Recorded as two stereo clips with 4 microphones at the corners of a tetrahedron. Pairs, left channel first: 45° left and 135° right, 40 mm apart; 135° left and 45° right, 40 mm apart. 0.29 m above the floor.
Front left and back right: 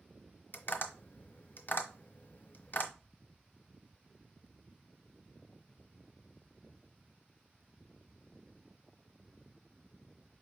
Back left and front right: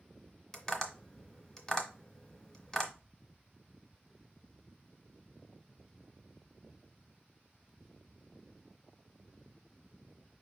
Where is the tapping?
65° left, 1.2 m.